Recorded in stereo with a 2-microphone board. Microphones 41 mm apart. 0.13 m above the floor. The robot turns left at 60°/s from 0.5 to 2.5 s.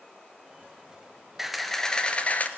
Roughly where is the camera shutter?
Behind.